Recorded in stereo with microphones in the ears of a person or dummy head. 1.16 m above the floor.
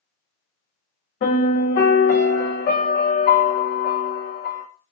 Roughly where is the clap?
I don't hear a clap.